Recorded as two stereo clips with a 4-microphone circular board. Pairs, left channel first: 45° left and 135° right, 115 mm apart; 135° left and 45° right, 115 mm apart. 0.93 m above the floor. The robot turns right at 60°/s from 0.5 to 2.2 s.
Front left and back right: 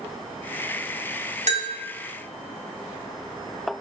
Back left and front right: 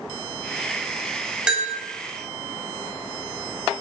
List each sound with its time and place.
1.5 s a bell: 125° right, 1.5 m; by 1.7 s 110° right, 1.5 m